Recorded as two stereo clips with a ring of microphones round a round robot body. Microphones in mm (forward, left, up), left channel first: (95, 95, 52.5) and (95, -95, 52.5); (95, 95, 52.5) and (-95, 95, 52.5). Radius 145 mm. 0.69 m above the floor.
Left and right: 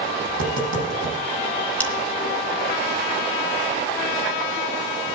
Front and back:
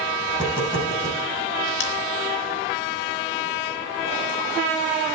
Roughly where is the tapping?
Right.